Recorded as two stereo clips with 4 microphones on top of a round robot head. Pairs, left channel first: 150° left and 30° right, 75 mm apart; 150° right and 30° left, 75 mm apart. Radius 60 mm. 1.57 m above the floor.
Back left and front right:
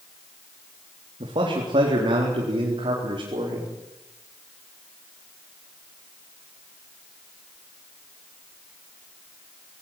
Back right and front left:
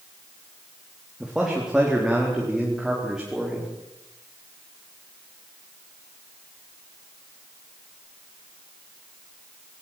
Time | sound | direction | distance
1.2 | a man speaking | 55° right | 3.5 m